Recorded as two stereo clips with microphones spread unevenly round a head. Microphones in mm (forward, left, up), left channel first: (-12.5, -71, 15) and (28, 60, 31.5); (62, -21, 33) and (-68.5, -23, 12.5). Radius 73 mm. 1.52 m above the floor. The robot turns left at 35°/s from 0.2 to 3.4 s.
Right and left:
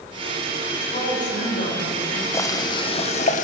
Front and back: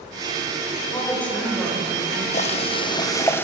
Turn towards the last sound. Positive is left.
turn(degrees=-70)